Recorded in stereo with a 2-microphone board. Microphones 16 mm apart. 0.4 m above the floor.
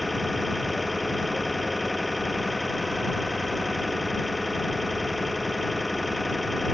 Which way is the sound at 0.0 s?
5° right (ahead or behind).